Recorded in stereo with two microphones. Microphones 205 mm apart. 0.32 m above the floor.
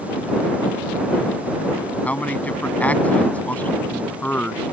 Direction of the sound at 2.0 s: 5° left (ahead or behind).